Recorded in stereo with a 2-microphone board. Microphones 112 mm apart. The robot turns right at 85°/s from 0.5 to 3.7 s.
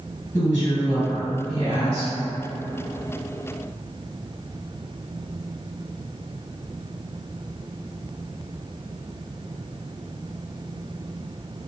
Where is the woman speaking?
Straight behind, 1.8 m; by 2.1 s 40° right, 1.8 m.